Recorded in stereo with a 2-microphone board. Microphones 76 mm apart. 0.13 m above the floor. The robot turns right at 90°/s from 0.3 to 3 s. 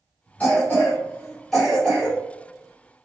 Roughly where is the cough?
Left.